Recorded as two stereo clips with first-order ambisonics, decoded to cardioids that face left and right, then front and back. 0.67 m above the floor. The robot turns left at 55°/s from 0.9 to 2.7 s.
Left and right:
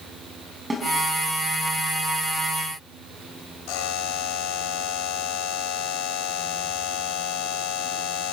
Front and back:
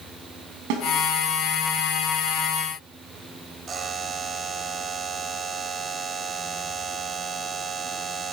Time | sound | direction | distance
0.7 | a snare drum | 170° right | 6 m
3.7 | a buzzer | 110° left | 2 m